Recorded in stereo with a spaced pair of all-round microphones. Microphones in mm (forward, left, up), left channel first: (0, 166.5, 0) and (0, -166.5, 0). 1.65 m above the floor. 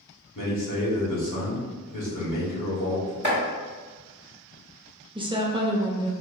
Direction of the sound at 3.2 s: 35° right (ahead or behind).